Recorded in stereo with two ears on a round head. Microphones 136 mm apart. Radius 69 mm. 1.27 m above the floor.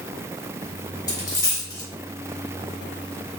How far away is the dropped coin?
About 1.2 m.